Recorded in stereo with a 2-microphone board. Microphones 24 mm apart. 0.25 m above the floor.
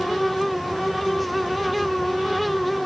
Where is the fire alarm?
No fire alarm in this recording.